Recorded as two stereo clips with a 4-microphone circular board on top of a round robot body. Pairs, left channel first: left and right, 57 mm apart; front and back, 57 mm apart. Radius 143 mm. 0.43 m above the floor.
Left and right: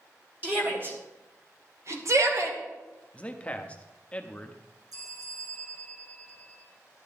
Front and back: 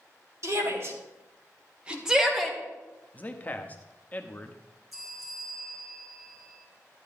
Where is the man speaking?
40° left, 1.0 m.